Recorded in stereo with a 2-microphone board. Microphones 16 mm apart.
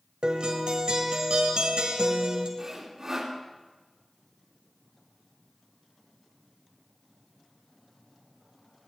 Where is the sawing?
35° right (ahead or behind), 2.5 m.